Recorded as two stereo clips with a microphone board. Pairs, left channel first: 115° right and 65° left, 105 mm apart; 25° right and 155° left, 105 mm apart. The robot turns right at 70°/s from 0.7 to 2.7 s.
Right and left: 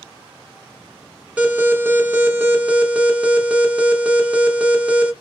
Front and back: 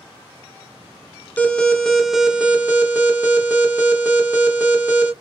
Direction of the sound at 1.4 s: 20° left.